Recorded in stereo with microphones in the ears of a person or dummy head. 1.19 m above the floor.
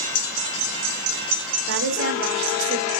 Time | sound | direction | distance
1.7 | a woman speaking | 55° right (ahead or behind) | 1.0 m